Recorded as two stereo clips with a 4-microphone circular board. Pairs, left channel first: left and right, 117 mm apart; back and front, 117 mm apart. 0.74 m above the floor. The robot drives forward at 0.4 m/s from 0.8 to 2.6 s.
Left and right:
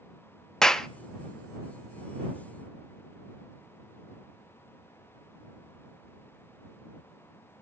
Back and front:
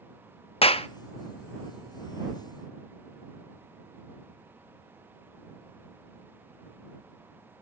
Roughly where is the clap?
Behind.